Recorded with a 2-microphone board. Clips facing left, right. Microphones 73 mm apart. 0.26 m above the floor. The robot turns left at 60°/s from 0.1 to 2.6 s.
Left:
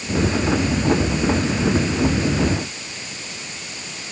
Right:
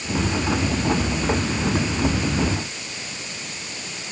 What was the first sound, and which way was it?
Only background noise.